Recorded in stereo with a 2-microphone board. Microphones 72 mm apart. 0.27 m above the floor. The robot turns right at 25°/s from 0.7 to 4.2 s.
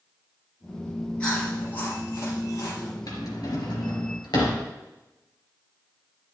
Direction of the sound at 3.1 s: 55° left (ahead or behind).